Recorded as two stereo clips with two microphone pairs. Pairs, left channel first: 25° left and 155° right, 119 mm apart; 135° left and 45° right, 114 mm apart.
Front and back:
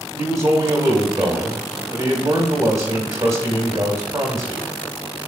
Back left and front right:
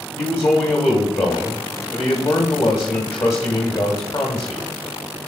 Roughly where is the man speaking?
Behind.